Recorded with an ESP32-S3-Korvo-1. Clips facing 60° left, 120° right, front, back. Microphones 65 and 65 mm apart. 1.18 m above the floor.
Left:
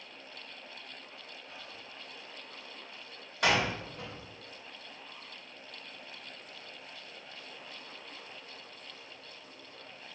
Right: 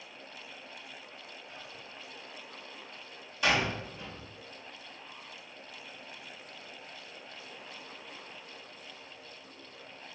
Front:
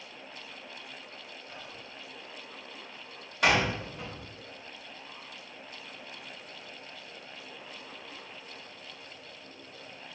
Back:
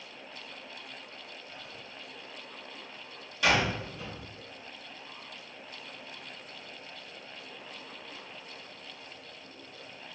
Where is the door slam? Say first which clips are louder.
Even, front 1 dB; 30° left, 4 m.